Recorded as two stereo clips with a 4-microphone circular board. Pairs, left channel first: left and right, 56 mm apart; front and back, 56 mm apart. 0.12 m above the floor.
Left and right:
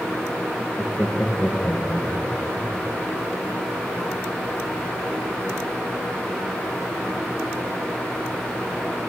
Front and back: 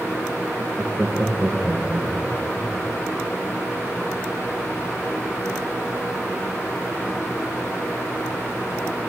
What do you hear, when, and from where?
0.6 s laughter: 170° left, 1.5 m; by 2.7 s 120° left, 2.5 m